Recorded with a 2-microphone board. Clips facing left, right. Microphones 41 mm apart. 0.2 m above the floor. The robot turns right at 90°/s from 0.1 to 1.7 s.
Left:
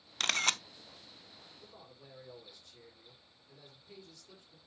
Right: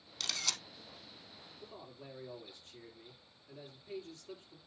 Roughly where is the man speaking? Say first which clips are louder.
Right 8 dB; right.